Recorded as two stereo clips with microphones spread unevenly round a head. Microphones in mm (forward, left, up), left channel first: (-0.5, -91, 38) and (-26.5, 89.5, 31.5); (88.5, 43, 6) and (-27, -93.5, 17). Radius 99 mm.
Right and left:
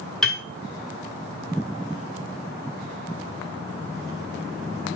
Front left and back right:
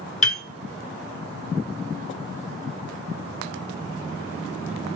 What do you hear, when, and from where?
0.2 s a piano: 5° left, 1.2 m